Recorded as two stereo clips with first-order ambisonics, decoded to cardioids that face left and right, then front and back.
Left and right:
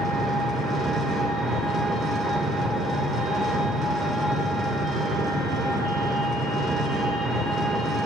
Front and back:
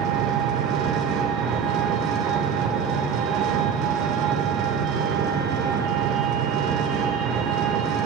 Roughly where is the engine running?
Behind right.